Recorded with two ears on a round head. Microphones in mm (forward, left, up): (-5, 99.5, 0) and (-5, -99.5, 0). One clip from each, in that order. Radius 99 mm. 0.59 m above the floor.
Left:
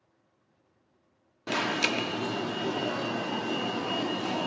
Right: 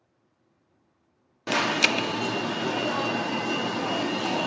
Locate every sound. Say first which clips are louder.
1.5 s an alarm: right 5 dB; 15° right (ahead or behind), 0.5 m